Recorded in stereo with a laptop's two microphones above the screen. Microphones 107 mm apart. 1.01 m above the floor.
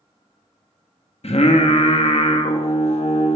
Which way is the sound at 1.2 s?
75° left (ahead or behind).